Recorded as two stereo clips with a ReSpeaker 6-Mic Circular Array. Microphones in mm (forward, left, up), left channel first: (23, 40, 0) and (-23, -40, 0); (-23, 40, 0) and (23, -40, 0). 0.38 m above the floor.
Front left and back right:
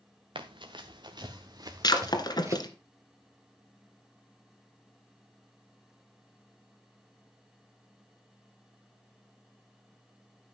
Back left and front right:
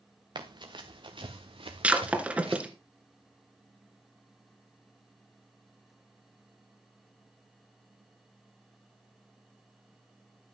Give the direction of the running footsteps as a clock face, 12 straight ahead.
3 o'clock.